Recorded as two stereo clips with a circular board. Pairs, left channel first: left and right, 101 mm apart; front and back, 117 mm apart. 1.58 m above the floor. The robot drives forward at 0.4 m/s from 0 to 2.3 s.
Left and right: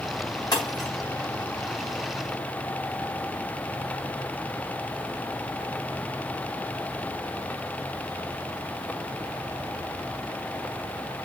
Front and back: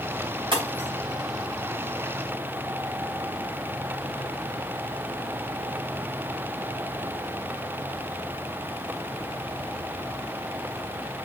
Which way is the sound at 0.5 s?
135° left.